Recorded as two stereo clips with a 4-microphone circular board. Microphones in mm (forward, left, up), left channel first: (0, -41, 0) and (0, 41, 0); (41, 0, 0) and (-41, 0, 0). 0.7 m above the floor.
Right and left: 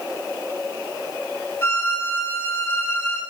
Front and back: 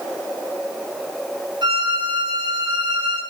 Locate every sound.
1.6 s a violin: 155° right, 9 m